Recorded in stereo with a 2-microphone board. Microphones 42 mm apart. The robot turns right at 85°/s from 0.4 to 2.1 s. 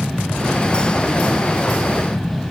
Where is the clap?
No clap in this recording.